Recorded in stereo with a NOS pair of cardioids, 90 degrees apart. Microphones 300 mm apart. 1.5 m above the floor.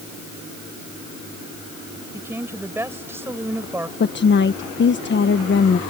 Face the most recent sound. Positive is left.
turn(degrees=35)